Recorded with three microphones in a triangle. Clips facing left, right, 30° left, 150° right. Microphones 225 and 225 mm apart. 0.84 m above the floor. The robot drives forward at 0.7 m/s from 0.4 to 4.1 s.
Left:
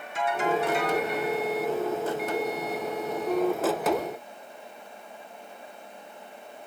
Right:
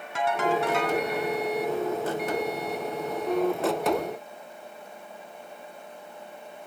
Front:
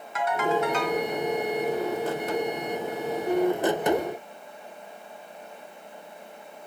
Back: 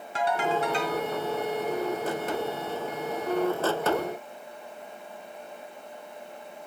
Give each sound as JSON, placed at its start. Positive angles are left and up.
{"t": 0.1, "sound": "a ringtone", "azimuth_deg": -90, "distance_m": 3.5}